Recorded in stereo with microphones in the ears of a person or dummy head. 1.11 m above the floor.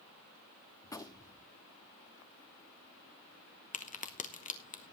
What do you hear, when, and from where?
0.8 s a gunshot: 10° left (ahead or behind), 1.0 m
3.7 s a crack: 30° left (ahead or behind), 0.9 m